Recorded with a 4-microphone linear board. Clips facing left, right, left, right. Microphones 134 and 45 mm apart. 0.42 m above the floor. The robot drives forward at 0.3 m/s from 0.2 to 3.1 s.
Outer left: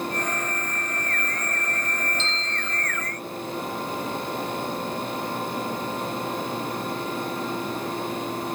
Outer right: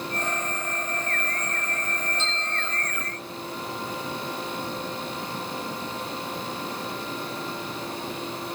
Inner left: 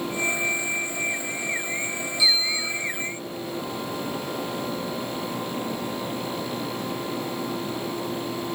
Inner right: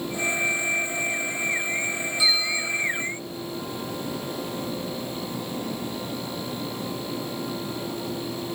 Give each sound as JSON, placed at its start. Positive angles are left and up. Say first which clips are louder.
{"t": 2.2, "sound": "a bell", "louder": "even, inner left 1 dB", "side_deg": -50, "distance_m": 0.7}